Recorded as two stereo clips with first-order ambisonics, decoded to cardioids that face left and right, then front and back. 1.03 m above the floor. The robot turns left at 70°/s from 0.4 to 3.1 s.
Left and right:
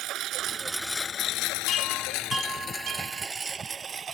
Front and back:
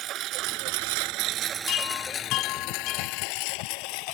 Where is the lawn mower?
135° right; by 4.2 s 20° right.